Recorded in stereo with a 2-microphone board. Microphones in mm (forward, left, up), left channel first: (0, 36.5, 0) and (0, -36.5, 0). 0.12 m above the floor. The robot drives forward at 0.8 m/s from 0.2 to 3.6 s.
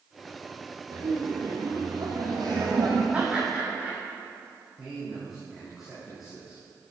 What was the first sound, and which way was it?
Laughter, 70° right (ahead or behind).